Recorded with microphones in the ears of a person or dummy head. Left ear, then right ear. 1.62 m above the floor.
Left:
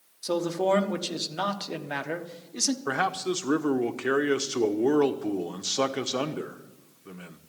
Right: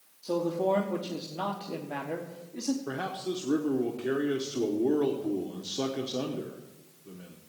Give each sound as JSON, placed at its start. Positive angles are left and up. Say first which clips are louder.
{"t": 0.2, "sound": "a man speaking", "louder": "left 2 dB", "side_deg": 50, "distance_m": 1.3}
{"t": 2.9, "sound": "a man speaking", "louder": "left 7 dB", "side_deg": 45, "distance_m": 0.8}